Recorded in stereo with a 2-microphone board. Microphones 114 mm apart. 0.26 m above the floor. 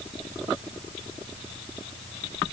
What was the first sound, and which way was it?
Only background noise.